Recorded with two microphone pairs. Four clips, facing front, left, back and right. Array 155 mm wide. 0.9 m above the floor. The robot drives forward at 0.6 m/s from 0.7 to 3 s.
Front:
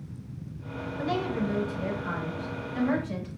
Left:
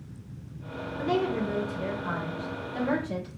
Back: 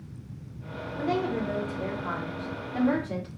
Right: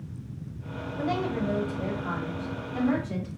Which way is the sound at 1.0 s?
125° right.